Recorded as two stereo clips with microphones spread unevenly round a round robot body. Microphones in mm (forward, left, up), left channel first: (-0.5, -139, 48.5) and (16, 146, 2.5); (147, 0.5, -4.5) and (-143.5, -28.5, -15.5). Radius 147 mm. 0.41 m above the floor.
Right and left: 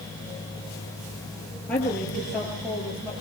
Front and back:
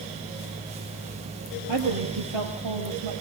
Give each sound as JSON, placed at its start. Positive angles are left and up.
{"t": 1.7, "sound": "a woman speaking", "azimuth_deg": -175, "distance_m": 8.5}